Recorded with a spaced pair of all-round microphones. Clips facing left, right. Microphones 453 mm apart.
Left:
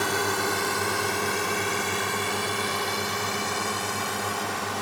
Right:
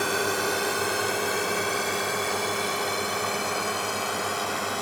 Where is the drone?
15° left (ahead or behind); by 4.8 s 10° left (ahead or behind).